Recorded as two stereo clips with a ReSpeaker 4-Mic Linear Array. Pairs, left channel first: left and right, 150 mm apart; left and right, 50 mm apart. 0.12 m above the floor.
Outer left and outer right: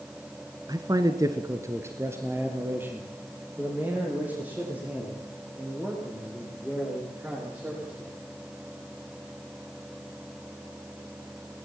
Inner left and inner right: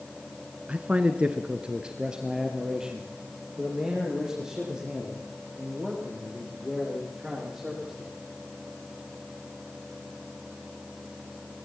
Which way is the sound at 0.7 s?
25° right (ahead or behind).